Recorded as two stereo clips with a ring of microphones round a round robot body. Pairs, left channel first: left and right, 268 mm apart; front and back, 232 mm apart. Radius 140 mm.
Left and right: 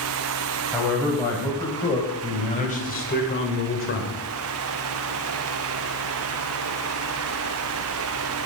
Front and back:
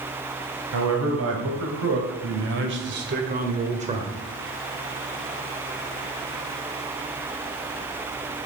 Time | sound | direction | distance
0.7 | a man speaking | 170° left | 3 m